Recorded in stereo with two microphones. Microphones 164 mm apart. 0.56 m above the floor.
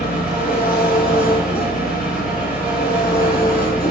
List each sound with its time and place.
0.0 s an engine running: 70° left (ahead or behind), 3.5 m